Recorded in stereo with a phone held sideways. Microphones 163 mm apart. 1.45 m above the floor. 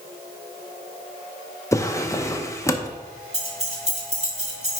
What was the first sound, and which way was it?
A drawer, 20° left (ahead or behind).